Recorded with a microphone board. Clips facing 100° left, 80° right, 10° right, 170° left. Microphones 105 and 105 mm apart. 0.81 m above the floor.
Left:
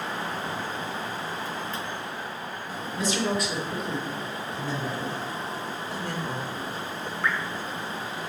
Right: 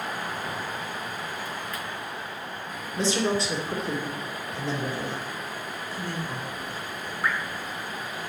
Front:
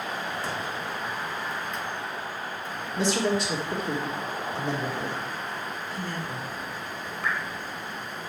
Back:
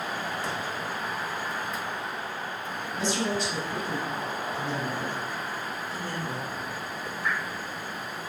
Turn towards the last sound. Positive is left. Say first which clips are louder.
# even, front 1 dB
turn(degrees=0)